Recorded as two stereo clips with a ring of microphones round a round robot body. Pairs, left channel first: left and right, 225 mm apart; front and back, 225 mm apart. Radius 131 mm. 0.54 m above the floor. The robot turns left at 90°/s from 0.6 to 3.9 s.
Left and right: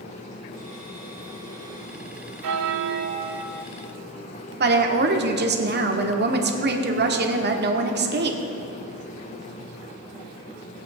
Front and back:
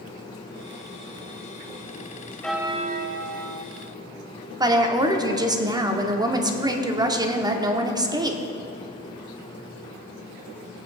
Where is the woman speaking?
110° right, 1.4 m.